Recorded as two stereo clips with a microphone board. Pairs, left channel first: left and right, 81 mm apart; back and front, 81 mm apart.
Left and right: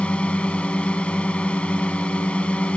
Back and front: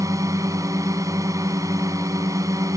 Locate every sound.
0.0 s a drone: 20° left